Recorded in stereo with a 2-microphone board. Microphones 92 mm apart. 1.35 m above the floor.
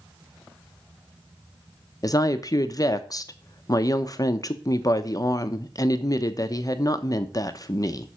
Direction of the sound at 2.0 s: 40° left (ahead or behind).